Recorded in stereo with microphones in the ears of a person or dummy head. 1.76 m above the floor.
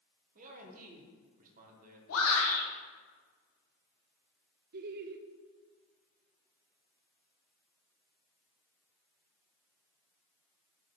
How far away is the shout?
About 2.5 m.